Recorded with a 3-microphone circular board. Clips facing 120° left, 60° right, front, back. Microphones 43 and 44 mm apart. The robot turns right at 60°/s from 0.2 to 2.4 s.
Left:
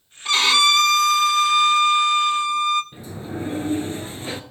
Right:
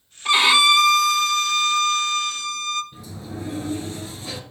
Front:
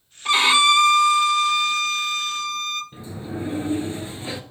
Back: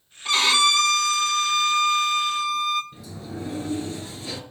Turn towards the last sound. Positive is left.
turn(degrees=65)